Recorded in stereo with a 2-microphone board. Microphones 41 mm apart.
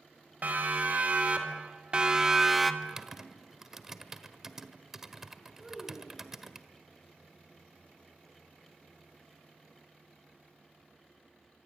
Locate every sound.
0.4 s a siren: 40° right (ahead or behind), 4.5 m; by 2.7 s 5° left (ahead or behind), 1.4 m
2.8 s typing on a keyboard: 10° right (ahead or behind), 1.4 m
5.6 s a child speaking: centre (ahead or behind), 5.5 m